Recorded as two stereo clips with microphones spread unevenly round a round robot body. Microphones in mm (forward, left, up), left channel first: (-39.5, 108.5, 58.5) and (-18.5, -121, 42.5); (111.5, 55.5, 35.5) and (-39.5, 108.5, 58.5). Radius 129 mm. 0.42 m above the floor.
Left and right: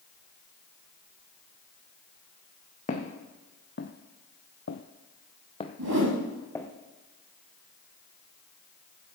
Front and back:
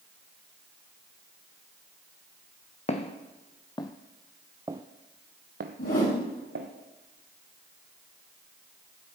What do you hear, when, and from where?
2.9 s footsteps: 35° left, 1.3 m; by 6.7 s 175° left, 1.4 m
5.8 s a whoosh: 65° right, 6 m